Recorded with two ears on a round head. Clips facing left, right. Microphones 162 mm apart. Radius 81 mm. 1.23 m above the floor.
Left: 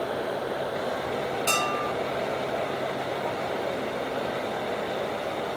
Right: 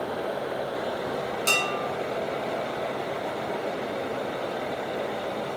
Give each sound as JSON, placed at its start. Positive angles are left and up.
{"t": 1.5, "sound": "dishes clattering", "side_deg": -55, "distance_m": 1.6}